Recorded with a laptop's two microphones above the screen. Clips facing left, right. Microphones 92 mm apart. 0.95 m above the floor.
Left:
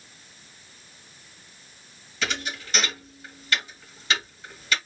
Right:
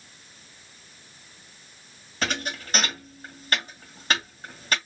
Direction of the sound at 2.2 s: 45° right (ahead or behind).